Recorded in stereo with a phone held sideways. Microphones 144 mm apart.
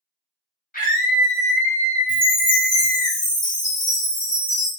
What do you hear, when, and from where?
0.7 s a scream: 75° left (ahead or behind), 1.9 m; by 3.1 s 50° right (ahead or behind), 0.9 m
2.1 s a chime: 65° left (ahead or behind), 1.9 m